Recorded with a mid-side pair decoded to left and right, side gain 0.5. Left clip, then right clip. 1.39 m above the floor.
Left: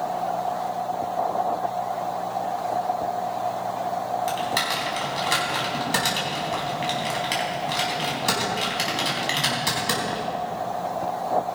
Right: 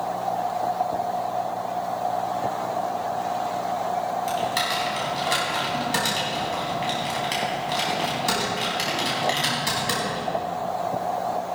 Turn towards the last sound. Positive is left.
turn(degrees=15)